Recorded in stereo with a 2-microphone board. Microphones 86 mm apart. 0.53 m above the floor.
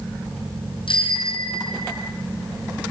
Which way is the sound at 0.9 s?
75° left (ahead or behind).